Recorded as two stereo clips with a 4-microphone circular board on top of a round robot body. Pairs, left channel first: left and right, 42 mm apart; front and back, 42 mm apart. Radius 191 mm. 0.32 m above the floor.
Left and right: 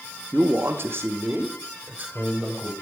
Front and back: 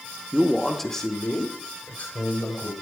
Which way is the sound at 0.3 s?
115° right.